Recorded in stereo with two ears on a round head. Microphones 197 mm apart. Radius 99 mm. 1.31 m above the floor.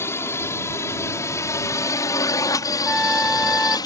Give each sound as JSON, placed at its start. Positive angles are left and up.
{"t": 0.0, "sound": "a drone", "side_deg": 15}
{"t": 2.9, "sound": "a trumpet", "side_deg": 5}